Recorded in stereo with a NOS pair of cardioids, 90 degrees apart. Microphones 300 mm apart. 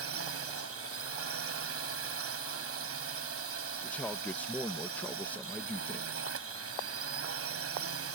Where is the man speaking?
5° left.